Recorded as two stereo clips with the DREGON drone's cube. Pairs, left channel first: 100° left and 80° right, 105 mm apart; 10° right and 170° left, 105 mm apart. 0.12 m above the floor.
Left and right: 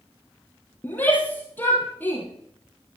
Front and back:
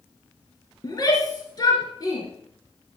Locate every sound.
0.8 s a shout: 30° left, 1.9 m